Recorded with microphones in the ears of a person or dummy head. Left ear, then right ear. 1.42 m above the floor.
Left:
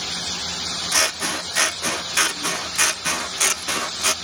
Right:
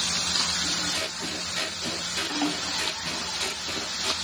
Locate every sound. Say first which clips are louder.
0.9 s scissors: left 9 dB; 55° left (ahead or behind)